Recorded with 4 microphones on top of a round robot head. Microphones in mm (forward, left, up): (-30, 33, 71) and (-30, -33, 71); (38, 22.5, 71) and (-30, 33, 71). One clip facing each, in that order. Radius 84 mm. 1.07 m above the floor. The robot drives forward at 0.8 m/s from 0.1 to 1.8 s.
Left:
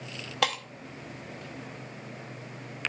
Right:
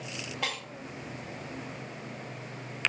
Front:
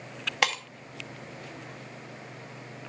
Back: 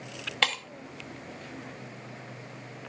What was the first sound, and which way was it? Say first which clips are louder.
Breaking glass: left 7 dB, front 2 dB; 70° left.